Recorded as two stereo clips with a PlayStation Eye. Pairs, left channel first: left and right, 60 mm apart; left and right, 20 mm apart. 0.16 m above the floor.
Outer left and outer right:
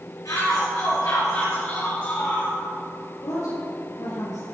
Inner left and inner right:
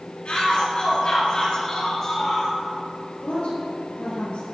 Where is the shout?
70° left (ahead or behind), 4 m; by 2.5 s 25° left (ahead or behind), 4 m.